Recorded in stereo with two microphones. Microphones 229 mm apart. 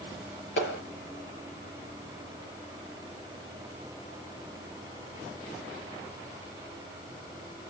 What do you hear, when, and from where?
0.6 s a clap: 55° left (ahead or behind), 6.5 m